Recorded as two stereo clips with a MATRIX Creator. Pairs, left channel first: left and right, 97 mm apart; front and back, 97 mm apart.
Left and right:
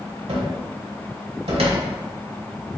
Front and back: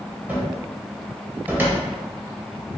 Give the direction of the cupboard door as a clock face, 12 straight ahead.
4 o'clock.